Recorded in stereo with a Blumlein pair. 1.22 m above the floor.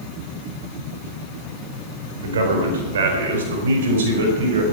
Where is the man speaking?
65° right, 4.5 m; by 4.6 s 60° right, 5.5 m.